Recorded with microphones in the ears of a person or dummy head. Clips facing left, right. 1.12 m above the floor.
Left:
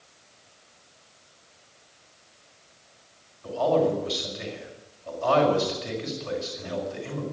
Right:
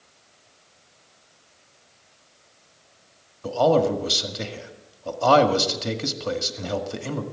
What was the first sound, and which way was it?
A man speaking, 55° right (ahead or behind).